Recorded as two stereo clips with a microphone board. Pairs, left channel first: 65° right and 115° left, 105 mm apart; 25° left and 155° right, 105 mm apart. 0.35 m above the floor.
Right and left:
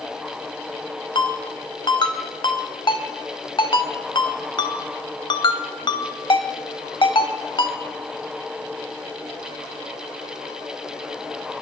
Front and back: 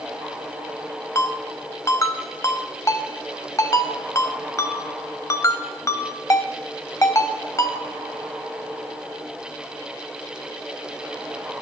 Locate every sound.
1.1 s a ringtone: 35° right, 0.8 m